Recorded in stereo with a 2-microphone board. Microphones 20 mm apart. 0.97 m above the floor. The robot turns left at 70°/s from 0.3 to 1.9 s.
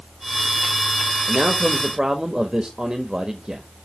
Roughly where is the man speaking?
Right.